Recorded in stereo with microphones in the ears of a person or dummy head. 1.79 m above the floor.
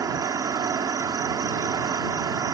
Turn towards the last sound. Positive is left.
turn(degrees=-15)  # may be behind; listen again after turning